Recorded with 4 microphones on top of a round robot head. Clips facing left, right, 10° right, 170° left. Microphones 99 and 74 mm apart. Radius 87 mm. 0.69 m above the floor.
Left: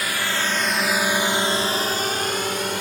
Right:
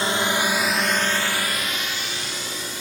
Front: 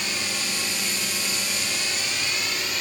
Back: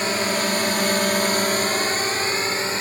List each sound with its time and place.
0.0 s a drone: 145° right; by 2.8 s 115° left